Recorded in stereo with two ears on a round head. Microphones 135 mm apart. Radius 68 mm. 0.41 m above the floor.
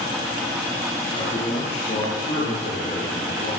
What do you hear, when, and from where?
1.1 s a man speaking: 35° left (ahead or behind), 7.5 m; by 3.5 s 55° left (ahead or behind), 9 m